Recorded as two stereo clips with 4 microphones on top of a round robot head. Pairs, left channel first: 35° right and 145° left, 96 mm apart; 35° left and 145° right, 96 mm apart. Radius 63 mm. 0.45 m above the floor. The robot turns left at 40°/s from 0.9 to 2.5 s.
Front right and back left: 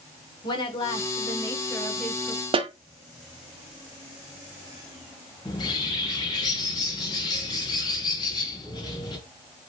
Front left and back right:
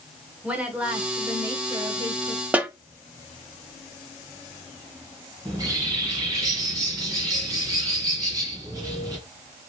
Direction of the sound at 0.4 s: 70° right.